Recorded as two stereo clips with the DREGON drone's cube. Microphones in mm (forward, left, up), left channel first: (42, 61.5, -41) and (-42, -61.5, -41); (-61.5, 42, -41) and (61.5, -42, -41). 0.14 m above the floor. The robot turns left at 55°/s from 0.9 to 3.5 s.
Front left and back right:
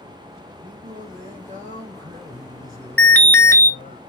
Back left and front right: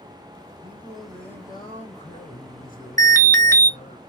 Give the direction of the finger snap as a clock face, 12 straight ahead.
I don't hear a finger snap.